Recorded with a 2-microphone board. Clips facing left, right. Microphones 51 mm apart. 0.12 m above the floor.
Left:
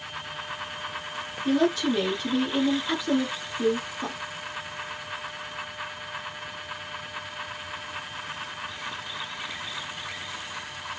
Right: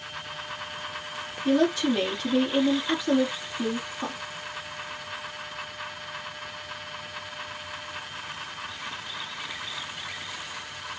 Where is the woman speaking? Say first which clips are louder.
Right 1 dB; 5° right (ahead or behind), 1.7 m.